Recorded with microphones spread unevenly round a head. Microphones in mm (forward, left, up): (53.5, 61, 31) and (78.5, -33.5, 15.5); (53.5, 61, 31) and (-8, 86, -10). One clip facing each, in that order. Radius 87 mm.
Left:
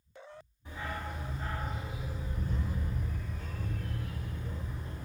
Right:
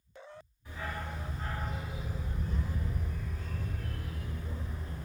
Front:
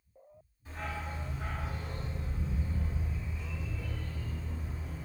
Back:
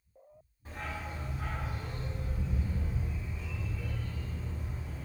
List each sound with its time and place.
0.7 s a dog barking: 115° left, 1.4 m; by 5.1 s 110° right, 2.5 m